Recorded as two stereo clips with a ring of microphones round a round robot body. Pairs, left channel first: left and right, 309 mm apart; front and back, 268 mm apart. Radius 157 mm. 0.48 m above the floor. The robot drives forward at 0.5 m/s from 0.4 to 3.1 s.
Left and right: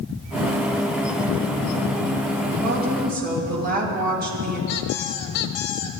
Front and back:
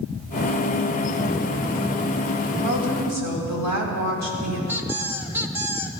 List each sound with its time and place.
2.6 s a woman speaking: 150° right, 3 m
4.7 s a squeak: 100° left, 1.2 m